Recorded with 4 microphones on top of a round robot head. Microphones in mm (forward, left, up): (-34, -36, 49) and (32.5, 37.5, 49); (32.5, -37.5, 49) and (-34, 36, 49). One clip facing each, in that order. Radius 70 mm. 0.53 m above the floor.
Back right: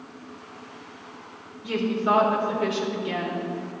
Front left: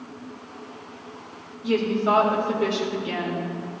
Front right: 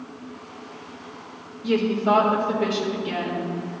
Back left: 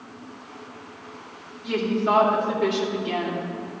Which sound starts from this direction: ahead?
A woman speaking, at 1.6 s.